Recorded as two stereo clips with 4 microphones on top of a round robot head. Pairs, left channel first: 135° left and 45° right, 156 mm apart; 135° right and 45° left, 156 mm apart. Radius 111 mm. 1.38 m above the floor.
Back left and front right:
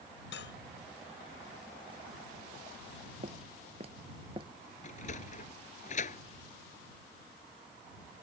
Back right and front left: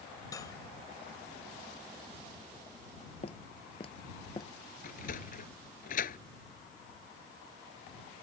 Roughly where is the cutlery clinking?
Behind left.